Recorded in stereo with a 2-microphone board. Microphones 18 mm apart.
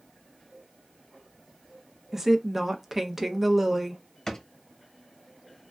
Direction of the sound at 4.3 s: 30° left (ahead or behind).